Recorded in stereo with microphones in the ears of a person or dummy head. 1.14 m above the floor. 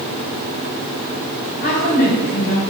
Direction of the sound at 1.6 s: 55° left (ahead or behind).